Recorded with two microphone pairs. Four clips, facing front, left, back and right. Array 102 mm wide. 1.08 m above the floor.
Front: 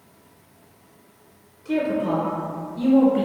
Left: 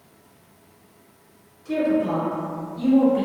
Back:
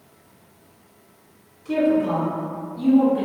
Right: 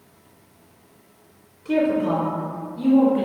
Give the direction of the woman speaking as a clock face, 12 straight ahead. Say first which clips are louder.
Right 1 dB, back 3 dB; 3 o'clock.